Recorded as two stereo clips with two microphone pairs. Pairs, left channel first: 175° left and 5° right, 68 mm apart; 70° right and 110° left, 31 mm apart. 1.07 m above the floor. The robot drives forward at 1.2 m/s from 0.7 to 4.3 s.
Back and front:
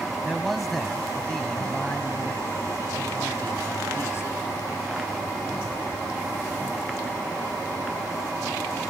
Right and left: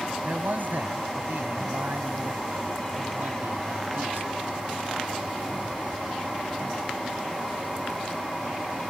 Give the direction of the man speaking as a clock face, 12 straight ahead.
9 o'clock.